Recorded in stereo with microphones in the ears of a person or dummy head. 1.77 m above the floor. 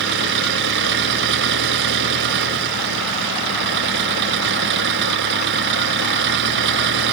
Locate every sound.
0.0 s an engine running: 60° right (ahead or behind)